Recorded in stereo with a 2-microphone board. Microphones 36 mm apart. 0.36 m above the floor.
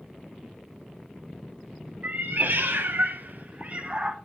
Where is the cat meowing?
55° right (ahead or behind), 0.9 m; by 4.2 s 25° right (ahead or behind), 1.1 m.